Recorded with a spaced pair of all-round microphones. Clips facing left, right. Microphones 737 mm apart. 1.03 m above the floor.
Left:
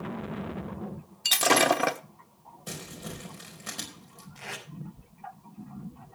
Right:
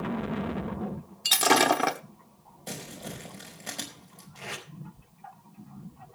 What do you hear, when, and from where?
1.2 s breaking glass: 5° left (ahead or behind), 0.8 m
2.7 s crumpling: 40° left (ahead or behind), 5 m
4.3 s tape being pulled: 60° right (ahead or behind), 5.5 m